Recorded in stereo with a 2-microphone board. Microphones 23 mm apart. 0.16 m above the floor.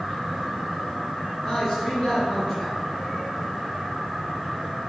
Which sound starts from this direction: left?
A man speaking, at 1.4 s.